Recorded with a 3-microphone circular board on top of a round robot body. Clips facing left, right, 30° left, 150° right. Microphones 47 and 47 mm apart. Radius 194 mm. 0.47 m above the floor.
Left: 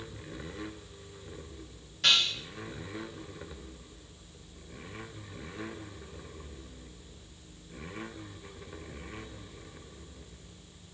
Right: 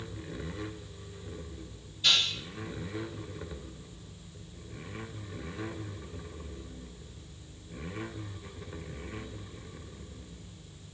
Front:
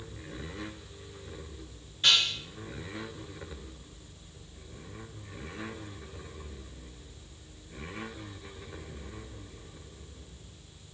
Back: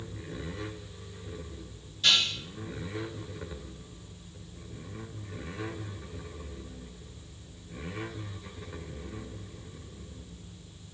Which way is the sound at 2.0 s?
85° left.